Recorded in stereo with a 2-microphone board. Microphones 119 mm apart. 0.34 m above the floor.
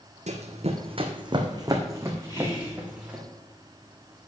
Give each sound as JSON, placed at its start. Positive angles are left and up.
{"t": 0.3, "sound": "running footsteps", "side_deg": -65, "distance_m": 1.3}
{"t": 2.3, "sound": "whispering", "side_deg": 30, "distance_m": 5.0}